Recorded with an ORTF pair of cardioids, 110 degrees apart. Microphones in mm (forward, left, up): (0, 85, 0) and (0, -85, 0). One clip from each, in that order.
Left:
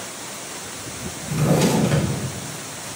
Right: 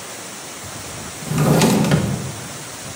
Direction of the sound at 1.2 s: 40° right.